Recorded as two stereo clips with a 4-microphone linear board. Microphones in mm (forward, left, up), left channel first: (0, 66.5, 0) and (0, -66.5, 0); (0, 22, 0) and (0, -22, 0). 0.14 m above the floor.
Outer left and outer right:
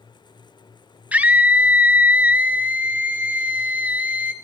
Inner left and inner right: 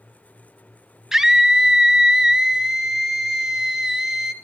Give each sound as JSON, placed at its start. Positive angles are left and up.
{"t": 1.1, "sound": "a scream", "side_deg": -10, "distance_m": 1.7}